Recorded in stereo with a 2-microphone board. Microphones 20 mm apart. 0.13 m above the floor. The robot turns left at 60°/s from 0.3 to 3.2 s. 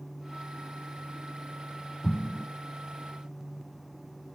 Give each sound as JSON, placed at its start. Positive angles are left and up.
{"t": 2.0, "sound": "an explosion", "side_deg": 35, "distance_m": 1.7}